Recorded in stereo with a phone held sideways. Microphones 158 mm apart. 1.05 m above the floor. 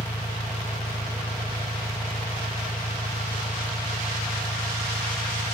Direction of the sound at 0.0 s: 45° left (ahead or behind).